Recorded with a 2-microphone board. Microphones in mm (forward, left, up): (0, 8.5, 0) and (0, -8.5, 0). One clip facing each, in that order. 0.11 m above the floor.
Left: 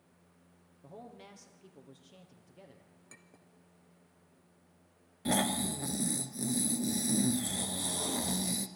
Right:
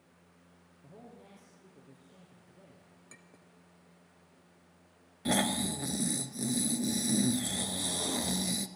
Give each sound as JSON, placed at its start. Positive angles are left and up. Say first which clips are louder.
{"t": 0.8, "sound": "a man speaking", "louder": "left 3 dB", "side_deg": 60, "distance_m": 2.5}
{"t": 3.1, "sound": "a clink", "louder": "right 1 dB", "side_deg": -10, "distance_m": 1.1}
{"t": 5.2, "sound": "snoring", "louder": "right 1 dB", "side_deg": -10, "distance_m": 1.0}